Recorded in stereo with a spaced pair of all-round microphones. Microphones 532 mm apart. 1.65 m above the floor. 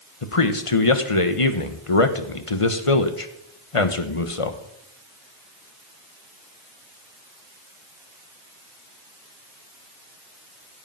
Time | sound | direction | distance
0.2 | a man speaking | 65° left (ahead or behind) | 1.3 m